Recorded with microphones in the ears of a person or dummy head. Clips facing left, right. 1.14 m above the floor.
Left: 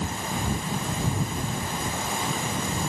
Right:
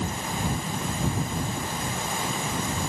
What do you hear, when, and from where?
Only background noise.